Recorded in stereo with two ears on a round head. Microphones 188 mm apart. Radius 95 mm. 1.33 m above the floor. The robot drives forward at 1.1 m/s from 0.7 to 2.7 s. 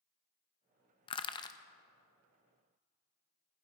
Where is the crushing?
25° left (ahead or behind), 0.5 m; by 1.6 s 15° left (ahead or behind), 0.7 m.